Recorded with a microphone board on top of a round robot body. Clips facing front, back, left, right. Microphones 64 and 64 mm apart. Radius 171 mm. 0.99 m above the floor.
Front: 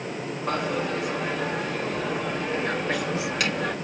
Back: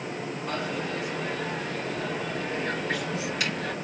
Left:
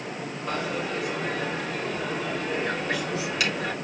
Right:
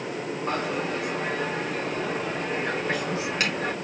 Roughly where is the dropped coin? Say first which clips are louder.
Front 6 dB, even; ahead right.